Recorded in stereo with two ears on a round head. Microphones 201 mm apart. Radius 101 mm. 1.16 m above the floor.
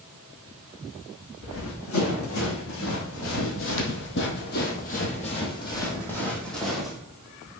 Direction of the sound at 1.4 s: 65° left (ahead or behind).